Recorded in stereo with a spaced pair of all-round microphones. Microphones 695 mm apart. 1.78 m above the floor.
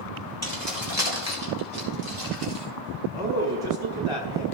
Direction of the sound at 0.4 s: 70° right (ahead or behind).